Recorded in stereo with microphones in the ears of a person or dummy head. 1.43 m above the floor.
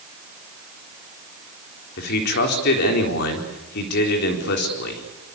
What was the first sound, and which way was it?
A man speaking, 60° left (ahead or behind).